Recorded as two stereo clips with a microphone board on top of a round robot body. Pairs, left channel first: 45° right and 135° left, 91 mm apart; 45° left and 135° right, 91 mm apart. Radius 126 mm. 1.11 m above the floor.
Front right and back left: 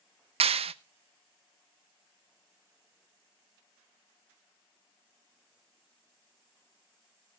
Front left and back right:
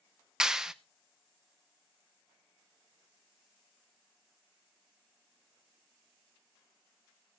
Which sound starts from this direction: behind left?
A clap, at 0.4 s.